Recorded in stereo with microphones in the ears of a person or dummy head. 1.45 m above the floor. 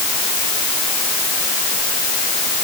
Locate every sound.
Only background noise.